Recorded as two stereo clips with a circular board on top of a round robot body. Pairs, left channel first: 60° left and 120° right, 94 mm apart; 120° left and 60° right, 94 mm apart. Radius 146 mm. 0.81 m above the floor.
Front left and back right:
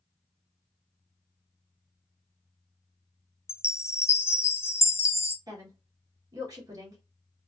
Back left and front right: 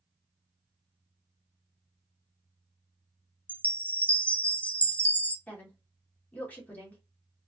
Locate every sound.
3.5 s a chime: 65° left, 0.6 m
5.5 s a woman speaking: 170° right, 1.6 m